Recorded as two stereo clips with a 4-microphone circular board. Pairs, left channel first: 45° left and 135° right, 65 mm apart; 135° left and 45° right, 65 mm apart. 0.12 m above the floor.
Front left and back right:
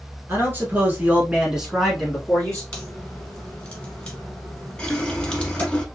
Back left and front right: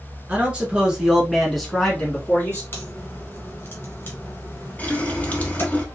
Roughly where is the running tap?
Left.